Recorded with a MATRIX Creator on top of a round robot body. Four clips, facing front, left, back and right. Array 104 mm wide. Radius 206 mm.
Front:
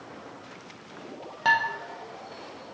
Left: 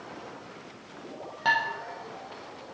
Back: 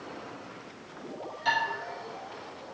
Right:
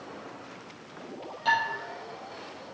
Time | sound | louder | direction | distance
1.4 | dishes clattering | even, front 5 dB | 30° left | 0.7 m